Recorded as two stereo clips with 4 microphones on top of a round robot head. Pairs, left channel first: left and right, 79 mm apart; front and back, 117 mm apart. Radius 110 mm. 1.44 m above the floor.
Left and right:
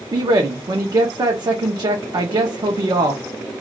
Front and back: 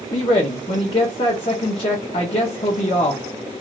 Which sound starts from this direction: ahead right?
A man speaking, at 0.1 s.